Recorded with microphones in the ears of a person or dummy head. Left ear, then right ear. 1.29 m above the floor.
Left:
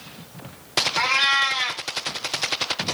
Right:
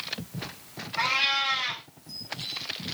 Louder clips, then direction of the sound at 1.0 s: Left 4 dB; 55° left (ahead or behind).